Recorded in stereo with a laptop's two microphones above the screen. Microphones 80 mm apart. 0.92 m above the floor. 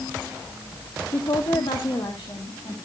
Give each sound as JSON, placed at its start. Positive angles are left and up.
{"t": 1.1, "sound": "a woman speaking", "side_deg": 60, "distance_m": 1.2}